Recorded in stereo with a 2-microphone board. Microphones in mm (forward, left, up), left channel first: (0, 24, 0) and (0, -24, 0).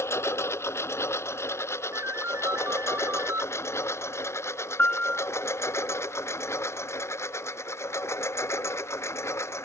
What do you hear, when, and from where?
0.0 s a lawn mower: 70° left (ahead or behind); by 9.7 s 75° left (ahead or behind)
1.9 s a ringtone: 70° right (ahead or behind)
4.8 s a piano: 40° left (ahead or behind)